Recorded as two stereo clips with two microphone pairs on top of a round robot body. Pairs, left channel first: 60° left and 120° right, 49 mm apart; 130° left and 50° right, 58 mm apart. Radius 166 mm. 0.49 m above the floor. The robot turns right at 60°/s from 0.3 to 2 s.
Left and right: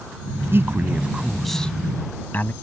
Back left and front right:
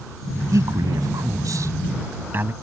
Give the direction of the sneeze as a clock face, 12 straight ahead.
I don't hear a sneeze.